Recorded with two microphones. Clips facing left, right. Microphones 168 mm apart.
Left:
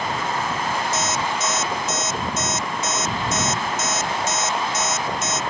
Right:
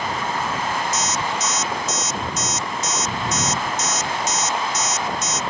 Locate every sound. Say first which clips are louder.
0.9 s an alarm clock: left 1 dB; 60° left (ahead or behind)